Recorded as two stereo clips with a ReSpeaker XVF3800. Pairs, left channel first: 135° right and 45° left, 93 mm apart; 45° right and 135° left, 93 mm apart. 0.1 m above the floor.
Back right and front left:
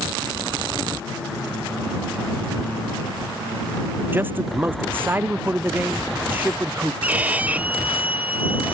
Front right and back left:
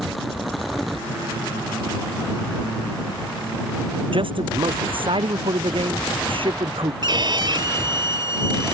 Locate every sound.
4.1 s a man speaking: 115° left
7.0 s a violin: 115° left